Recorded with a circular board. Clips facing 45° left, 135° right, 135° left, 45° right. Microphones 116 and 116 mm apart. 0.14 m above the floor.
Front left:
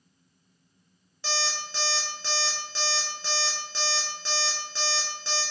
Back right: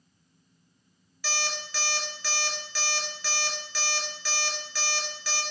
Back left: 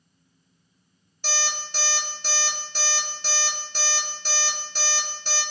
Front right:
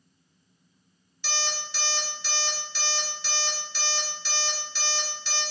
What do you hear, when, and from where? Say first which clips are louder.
1.2 s an alarm clock: front left 2 dB, back left 2 dB; 100° left, 1.0 m